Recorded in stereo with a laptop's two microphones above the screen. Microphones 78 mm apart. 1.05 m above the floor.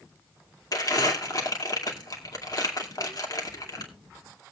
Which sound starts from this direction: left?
Crumpling, at 0.7 s.